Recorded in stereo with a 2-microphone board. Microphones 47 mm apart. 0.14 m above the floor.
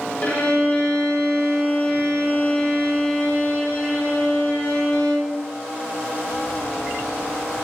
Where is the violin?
30° left (ahead or behind), 7.5 m.